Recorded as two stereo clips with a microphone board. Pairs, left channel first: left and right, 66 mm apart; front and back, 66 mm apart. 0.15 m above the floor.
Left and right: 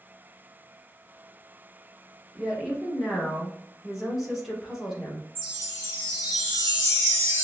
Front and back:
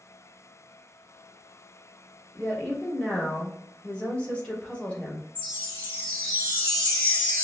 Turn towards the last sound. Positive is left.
turn(degrees=-60)